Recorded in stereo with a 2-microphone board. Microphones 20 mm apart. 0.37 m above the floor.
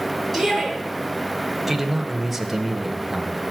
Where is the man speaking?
Centre (ahead or behind), 1.5 m.